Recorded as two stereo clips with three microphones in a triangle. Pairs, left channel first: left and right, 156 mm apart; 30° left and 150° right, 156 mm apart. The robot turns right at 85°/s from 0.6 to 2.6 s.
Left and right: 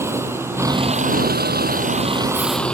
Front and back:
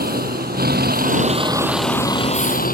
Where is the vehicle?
165° right; by 2.7 s 5° left.